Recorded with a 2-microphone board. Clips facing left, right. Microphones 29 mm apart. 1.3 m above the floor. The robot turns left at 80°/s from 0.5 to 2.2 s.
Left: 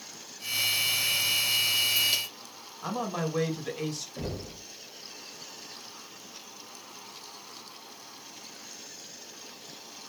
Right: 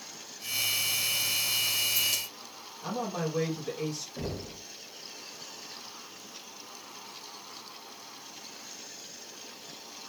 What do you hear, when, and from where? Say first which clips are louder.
2.8 s a man speaking: left 1 dB; 65° left (ahead or behind), 1.4 m
4.2 s knocking: even; 5° right (ahead or behind), 1.1 m